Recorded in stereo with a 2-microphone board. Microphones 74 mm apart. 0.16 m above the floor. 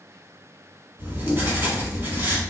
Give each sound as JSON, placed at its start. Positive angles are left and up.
{"t": 1.0, "sound": "writing", "side_deg": -30, "distance_m": 1.1}